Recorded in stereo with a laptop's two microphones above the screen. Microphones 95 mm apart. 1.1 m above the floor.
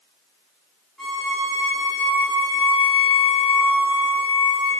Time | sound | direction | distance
1.0 | a violin | centre (ahead or behind) | 4 m